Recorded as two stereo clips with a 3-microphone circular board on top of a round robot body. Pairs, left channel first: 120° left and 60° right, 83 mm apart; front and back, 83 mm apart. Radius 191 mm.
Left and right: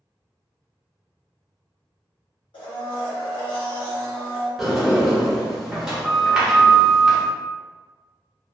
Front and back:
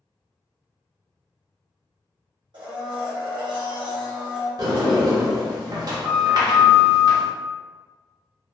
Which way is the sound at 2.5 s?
145° left.